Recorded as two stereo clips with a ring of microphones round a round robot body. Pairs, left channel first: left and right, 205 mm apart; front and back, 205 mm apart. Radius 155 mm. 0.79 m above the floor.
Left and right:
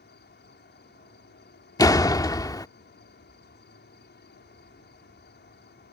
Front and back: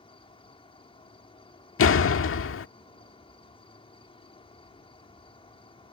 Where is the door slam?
15° left.